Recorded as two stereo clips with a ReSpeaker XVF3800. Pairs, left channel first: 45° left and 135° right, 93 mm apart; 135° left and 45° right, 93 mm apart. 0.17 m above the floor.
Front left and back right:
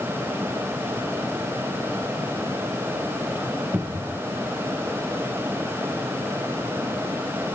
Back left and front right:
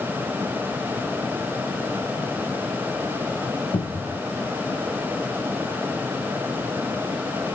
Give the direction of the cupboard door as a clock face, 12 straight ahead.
7 o'clock.